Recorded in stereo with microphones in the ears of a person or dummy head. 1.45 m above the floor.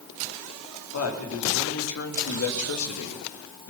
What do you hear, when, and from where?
0.9 s a man speaking: 85° left, 3.5 m; by 3.7 s 65° left (ahead or behind), 1.7 m